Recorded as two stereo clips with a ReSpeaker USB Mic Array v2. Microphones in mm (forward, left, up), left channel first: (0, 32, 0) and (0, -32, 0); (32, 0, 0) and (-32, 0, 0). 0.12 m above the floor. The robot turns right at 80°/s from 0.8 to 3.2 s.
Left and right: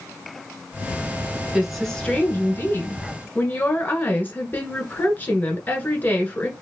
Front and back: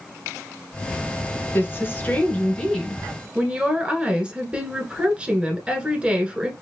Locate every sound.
1.5 s a woman speaking: 10° right, 1.3 m; by 6.5 s 120° left, 1.3 m